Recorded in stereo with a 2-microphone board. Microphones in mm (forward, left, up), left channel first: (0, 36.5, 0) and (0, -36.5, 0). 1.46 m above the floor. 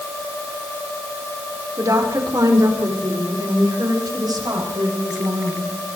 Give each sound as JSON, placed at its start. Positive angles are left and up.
{"t": 1.8, "sound": "a woman speaking", "side_deg": -50, "distance_m": 4.5}